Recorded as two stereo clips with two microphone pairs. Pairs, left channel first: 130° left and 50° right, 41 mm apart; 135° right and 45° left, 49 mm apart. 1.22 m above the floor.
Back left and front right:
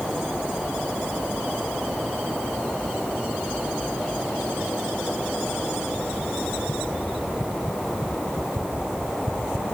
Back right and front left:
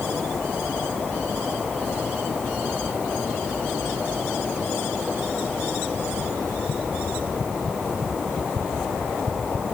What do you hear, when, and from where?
Only background noise.